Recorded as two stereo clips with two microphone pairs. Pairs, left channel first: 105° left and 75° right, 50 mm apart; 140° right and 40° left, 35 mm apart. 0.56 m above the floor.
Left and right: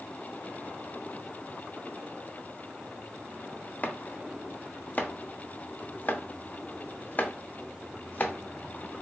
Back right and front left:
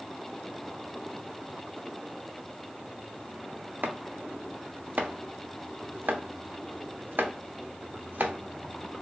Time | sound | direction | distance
3.8 | chopping | 55° left | 0.6 m